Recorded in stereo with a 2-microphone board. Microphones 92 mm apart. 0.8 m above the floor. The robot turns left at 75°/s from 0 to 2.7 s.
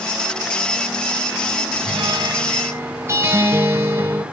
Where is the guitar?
85° right, 3.5 m; by 4.2 s 150° right, 3.5 m.